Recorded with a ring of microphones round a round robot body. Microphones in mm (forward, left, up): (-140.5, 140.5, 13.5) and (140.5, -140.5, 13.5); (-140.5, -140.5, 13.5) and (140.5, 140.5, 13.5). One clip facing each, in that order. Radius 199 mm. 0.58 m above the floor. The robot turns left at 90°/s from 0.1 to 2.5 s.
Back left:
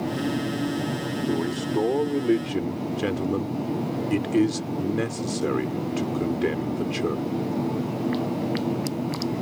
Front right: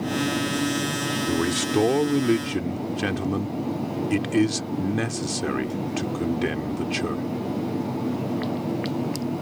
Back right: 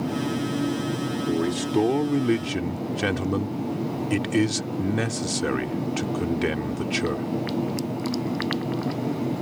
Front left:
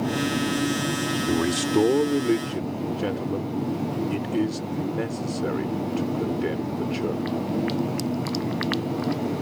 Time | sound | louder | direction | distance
1.3 | a man speaking | front right 2 dB, front left 1 dB | straight ahead | ?